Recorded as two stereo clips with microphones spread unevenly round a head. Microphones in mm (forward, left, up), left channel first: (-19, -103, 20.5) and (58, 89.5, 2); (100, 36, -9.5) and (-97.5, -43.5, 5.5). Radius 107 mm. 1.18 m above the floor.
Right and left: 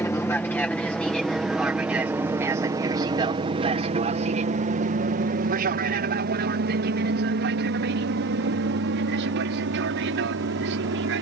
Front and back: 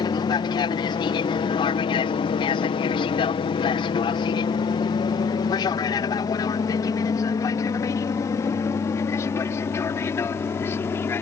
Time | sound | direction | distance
0.0 | an aircraft | 35° right | ?